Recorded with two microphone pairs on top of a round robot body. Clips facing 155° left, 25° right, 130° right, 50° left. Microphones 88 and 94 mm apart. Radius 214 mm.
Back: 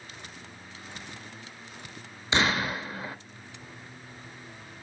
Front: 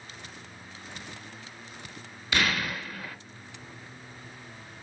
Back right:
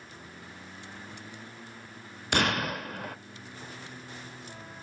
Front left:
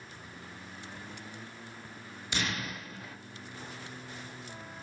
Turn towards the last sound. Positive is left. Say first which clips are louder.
# back 2 dB, back right 8 dB
turn(degrees=-145)